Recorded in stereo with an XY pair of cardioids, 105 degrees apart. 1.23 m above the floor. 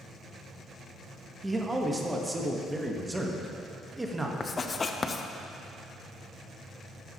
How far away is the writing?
About 0.6 m.